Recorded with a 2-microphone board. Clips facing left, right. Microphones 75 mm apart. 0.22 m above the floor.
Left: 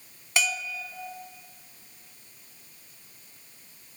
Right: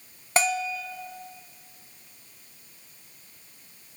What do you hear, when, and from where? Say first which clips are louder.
0.4 s a bell: right 5 dB; 40° right (ahead or behind), 0.9 m